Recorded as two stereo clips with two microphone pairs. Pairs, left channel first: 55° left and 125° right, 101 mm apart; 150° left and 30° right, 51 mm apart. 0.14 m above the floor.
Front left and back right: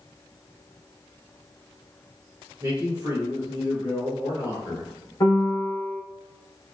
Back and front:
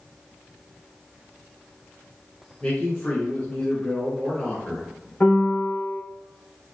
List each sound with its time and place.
2.6 s a man speaking: 145° right, 1.3 m
5.2 s a piano: 100° left, 0.9 m